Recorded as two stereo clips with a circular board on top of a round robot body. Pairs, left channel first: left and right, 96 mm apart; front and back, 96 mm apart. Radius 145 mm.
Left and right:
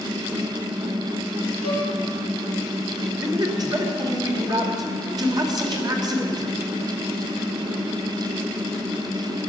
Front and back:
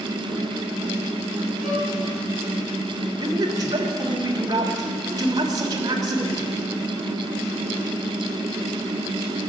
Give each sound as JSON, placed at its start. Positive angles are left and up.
{"t": 1.6, "sound": "a violin", "azimuth_deg": -90, "distance_m": 6.0}
{"t": 3.2, "sound": "a man speaking", "azimuth_deg": -135, "distance_m": 3.0}